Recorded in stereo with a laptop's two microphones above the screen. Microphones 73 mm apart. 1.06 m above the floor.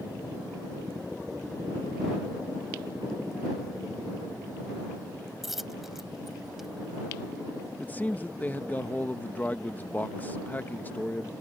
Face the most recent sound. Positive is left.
turn(degrees=25)  # may be behind; listen again after turning